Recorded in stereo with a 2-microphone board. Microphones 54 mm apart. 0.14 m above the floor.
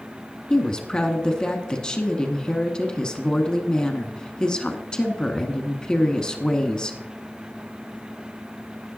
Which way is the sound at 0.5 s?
15° left (ahead or behind).